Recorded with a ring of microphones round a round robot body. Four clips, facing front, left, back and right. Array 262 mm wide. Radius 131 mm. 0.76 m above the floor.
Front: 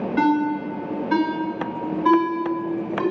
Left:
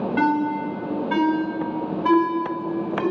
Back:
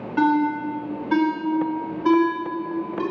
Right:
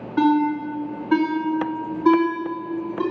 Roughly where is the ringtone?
Left.